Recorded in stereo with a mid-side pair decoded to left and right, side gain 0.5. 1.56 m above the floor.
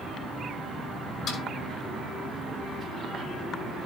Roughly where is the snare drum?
Ahead left.